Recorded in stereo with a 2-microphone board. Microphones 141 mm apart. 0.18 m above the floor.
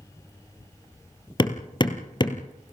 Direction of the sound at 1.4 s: 35° left (ahead or behind).